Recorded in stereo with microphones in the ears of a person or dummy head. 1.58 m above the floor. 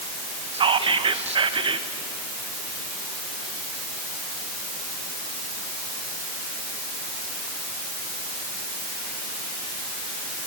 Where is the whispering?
35° right (ahead or behind), 1.2 m.